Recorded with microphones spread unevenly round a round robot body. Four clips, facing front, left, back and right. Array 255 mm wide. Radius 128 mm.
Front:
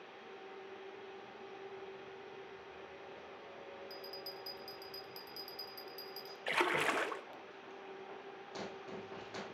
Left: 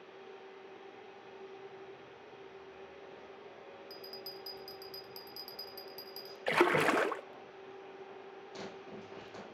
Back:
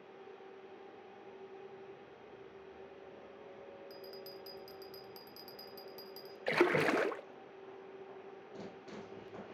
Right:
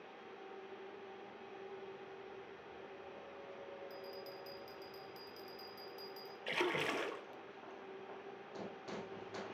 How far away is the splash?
About 0.9 m.